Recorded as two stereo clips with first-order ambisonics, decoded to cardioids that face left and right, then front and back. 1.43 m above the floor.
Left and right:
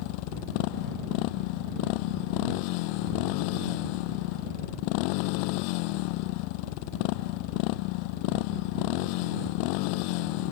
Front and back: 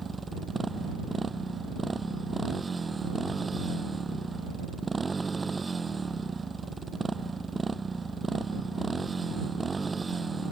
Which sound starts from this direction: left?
A motorcycle, at 0.0 s.